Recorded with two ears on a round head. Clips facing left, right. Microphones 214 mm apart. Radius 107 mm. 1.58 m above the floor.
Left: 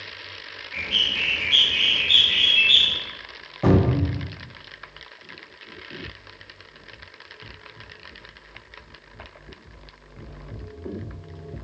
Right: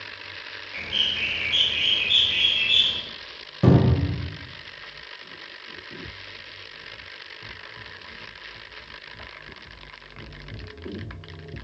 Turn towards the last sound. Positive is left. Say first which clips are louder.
# even
turn(degrees=-30)  # may be behind; listen again after turning